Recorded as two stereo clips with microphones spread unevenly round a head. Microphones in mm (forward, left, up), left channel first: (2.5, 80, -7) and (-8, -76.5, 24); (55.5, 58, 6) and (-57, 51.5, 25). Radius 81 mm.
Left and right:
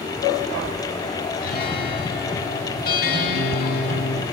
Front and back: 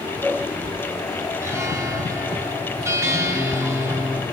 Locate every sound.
1.4 s a guitar: 120° left, 1.8 m